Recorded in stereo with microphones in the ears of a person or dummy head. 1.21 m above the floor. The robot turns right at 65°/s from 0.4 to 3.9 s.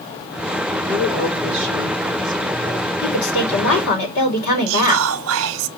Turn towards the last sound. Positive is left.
turn(degrees=-75)  # may be behind; listen again after turning